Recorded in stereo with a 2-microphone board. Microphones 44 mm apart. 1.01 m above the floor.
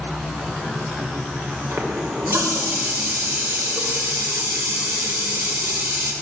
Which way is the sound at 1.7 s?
70° right (ahead or behind).